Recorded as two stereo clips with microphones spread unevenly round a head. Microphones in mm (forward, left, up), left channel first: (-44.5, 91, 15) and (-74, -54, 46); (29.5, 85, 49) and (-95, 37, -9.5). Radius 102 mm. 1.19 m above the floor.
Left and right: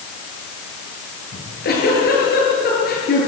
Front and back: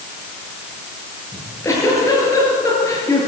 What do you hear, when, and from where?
1.3 s a giggle: 85° left, 8 m